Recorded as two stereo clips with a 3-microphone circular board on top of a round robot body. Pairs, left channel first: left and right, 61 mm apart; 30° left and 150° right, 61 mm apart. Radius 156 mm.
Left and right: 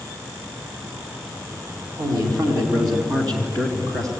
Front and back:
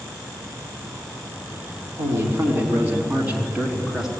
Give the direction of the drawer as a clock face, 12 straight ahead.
I don't hear a drawer.